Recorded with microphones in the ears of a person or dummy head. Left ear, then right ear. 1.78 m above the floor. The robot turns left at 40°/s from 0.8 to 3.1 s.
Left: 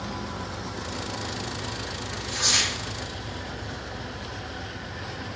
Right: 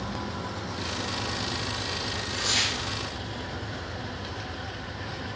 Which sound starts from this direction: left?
Tearing paper, at 2.1 s.